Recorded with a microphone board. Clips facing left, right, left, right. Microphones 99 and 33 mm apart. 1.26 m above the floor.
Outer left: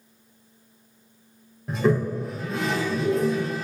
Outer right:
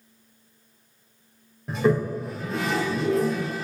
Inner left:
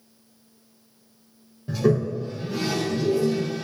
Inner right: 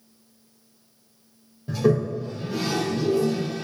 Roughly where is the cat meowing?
I don't hear a cat meowing.